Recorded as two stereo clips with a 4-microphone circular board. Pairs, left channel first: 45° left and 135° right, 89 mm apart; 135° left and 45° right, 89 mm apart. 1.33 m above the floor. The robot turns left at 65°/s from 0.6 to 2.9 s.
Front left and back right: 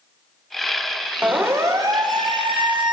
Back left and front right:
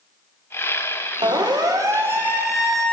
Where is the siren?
65° right, 2 m; by 2.9 s 145° right, 1.8 m.